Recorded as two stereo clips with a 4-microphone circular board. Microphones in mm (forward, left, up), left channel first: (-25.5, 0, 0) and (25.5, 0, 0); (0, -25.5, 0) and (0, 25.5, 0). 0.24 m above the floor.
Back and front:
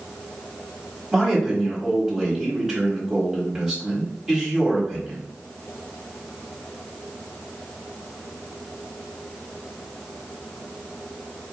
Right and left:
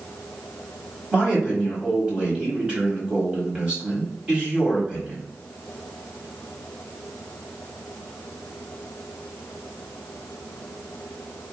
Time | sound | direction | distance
1.1 | a man speaking | 65° left | 1.3 m